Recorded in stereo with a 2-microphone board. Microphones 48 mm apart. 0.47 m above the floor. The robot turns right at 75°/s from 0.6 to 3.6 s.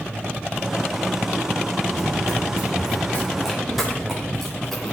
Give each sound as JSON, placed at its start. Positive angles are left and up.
{"t": 1.9, "sound": "running footsteps", "side_deg": 70, "distance_m": 5.0}